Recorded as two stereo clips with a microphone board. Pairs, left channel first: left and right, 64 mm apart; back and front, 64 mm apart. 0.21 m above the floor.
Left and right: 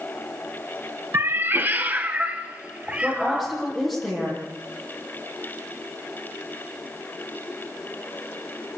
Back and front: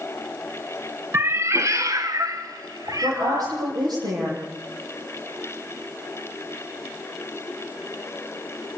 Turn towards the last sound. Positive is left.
turn(degrees=-5)